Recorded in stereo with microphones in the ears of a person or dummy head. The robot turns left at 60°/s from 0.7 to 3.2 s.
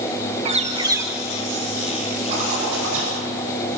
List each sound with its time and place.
0.5 s a bird: 140° right, 1.2 m; by 1.2 s 170° right, 1.2 m
2.3 s a zipper: 30° right, 8.5 m; by 3.2 s 80° right, 8.5 m